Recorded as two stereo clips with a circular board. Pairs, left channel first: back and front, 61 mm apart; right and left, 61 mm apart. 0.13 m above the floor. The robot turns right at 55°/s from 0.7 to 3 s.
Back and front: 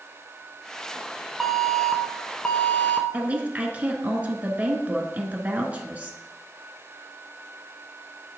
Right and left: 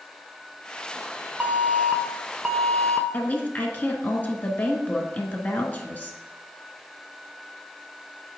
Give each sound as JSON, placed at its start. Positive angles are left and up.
{"t": 1.4, "sound": "an alarm", "azimuth_deg": 85, "distance_m": 0.8}
{"t": 3.1, "sound": "a woman speaking", "azimuth_deg": -50, "distance_m": 1.3}